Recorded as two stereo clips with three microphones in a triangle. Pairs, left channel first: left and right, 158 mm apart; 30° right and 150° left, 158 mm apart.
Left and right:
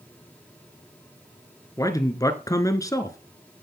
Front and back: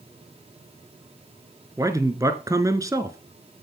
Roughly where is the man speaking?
Behind left.